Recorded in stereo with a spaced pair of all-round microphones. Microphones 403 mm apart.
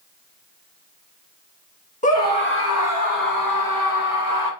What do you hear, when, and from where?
2.0 s a scream: 20° left (ahead or behind), 1.6 m; by 4.5 s 70° left (ahead or behind), 1.8 m